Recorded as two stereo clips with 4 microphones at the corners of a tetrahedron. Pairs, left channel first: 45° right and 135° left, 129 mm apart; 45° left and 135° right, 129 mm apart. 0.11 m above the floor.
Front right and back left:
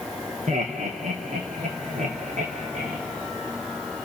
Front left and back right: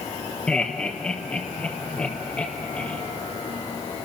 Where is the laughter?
130° left, 3 m; by 3.0 s 125° left, 4.5 m.